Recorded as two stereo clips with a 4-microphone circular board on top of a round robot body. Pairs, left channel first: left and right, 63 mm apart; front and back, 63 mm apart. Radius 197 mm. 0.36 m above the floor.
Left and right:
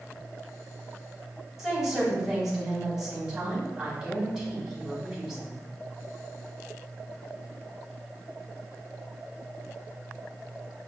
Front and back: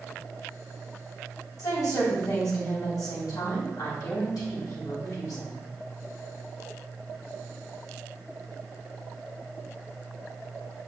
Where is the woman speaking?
10° right, 3 m.